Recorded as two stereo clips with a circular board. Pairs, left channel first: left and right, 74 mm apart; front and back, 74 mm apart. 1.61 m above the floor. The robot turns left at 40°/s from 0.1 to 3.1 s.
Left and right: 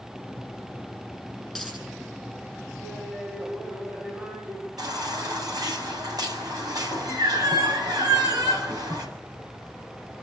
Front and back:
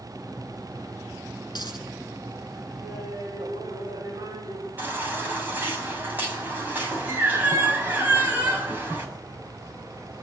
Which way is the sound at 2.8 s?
140° right.